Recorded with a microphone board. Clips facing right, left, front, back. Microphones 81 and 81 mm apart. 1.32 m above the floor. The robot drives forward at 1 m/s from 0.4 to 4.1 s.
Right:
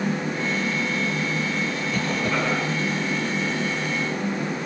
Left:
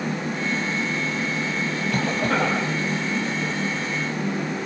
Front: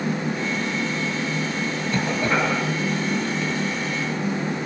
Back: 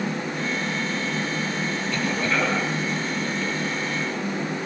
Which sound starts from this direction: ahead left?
A cough, at 1.9 s.